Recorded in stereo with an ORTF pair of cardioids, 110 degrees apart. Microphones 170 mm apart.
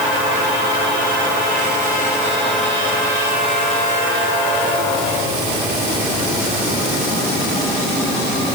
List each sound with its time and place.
Only background noise.